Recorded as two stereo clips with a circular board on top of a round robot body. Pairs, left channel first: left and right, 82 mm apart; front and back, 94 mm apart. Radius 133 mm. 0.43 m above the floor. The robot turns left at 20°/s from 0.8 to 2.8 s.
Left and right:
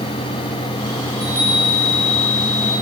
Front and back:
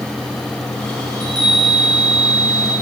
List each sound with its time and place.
1.1 s a chime: 135° right, 4.5 m; by 2.7 s 165° right, 4.5 m